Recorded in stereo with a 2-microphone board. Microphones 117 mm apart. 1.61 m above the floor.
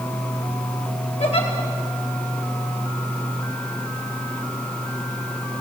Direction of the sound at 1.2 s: 85° left.